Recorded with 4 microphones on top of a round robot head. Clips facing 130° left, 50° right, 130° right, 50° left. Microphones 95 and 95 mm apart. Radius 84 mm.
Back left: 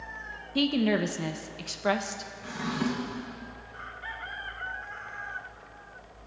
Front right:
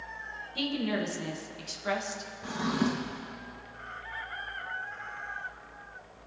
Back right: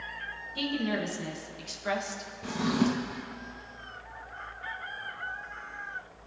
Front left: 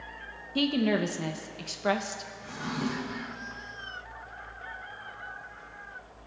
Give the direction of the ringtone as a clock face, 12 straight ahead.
I don't hear a ringtone.